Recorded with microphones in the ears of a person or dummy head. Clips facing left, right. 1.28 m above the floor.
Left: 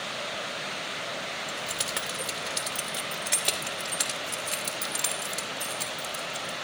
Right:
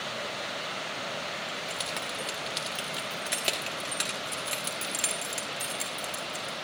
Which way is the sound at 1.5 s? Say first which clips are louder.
Left 1 dB; 20° left (ahead or behind).